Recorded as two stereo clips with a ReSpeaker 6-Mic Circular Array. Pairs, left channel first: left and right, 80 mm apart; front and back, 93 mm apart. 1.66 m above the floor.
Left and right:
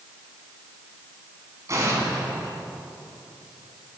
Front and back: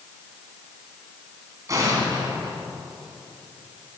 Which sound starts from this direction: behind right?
An explosion, at 1.7 s.